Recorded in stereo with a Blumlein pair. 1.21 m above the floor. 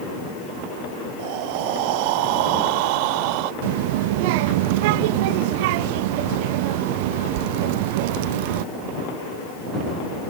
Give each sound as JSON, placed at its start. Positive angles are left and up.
{"t": 1.2, "sound": "breathing", "azimuth_deg": -45}
{"t": 3.6, "sound": "a child speaking", "azimuth_deg": -50}